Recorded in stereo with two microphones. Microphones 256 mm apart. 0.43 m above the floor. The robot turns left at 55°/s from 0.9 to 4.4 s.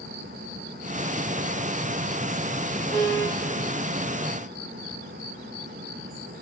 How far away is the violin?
About 5 m.